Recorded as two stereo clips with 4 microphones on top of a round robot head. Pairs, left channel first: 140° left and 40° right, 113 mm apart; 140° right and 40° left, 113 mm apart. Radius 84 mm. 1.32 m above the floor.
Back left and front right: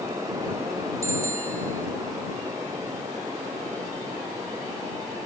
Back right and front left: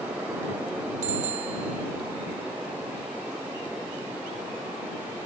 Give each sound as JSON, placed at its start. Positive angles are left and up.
{"t": 1.0, "sound": "a bicycle bell", "azimuth_deg": 20}